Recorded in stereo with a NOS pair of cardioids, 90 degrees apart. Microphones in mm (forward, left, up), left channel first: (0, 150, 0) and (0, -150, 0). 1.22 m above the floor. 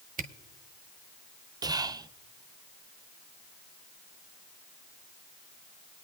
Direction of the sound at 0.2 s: 30° right.